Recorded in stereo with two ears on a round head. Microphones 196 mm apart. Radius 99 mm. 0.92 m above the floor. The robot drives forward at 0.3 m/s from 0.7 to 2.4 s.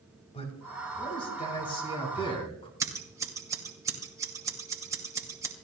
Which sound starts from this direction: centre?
Scissors, at 2.8 s.